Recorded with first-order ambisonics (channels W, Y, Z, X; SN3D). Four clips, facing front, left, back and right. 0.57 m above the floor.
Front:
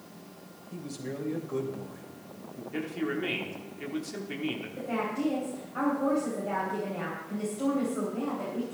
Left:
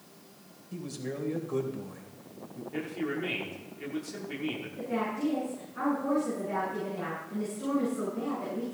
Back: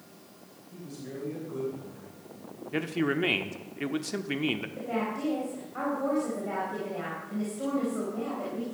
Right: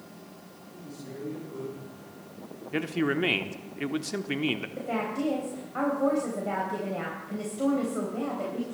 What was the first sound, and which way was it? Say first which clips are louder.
A man speaking: left 5 dB, front 3 dB; 60° left.